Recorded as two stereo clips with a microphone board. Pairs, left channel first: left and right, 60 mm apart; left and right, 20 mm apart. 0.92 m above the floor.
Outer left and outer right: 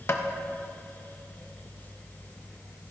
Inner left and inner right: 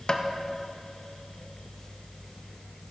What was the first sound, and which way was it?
Tapping, 45° left (ahead or behind).